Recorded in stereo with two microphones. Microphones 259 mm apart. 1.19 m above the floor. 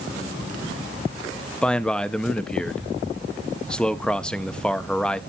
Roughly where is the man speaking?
Centre.